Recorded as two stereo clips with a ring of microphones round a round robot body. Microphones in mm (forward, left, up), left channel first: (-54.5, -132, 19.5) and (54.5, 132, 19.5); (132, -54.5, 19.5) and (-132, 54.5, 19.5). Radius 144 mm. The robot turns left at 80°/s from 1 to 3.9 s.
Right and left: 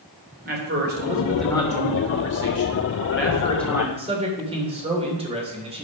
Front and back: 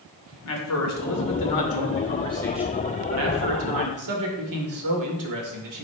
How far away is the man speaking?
About 2.5 m.